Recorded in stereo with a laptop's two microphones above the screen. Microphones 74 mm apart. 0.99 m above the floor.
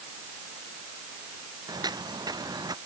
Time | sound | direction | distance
1.7 | footsteps | 65° right (ahead or behind) | ?